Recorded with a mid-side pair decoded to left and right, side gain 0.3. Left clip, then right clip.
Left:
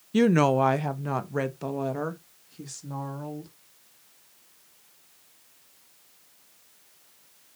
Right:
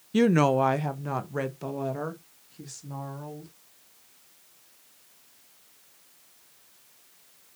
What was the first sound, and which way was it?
A woman speaking, 5° left.